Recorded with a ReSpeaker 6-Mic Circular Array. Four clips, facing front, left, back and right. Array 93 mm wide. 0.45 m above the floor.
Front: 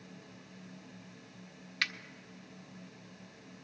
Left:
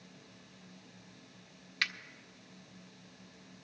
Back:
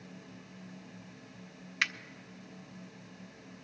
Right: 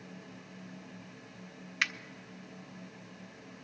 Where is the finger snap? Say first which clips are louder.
Right 3 dB, back 3 dB; 135° right, 0.6 m.